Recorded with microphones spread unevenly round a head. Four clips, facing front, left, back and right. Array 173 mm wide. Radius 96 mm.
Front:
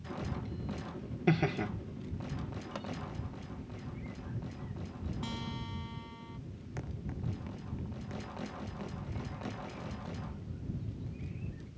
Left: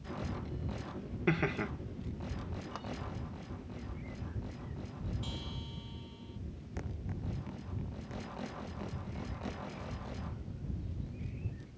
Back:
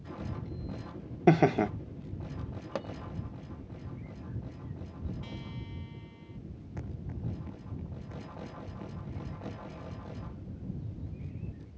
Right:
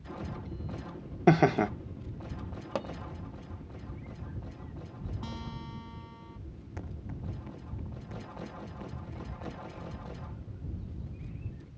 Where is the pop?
130° right.